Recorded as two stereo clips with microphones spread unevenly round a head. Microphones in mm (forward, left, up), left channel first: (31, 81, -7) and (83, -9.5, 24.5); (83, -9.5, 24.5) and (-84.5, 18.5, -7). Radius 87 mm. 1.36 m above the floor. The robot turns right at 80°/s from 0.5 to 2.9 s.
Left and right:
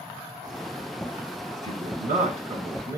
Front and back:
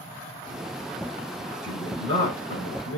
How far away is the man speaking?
About 7.5 m.